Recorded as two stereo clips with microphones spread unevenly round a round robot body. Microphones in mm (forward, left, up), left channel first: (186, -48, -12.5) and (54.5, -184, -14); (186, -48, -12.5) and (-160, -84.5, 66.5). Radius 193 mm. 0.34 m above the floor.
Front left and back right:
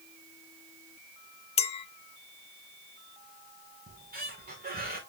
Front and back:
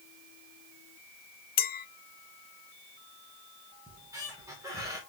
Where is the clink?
15° left, 0.6 m.